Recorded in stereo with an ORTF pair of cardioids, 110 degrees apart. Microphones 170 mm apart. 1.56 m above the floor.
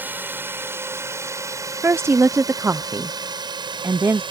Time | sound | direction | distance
0.0 | a drone | 10° right | ?
1.8 | a woman speaking | 15° right | ?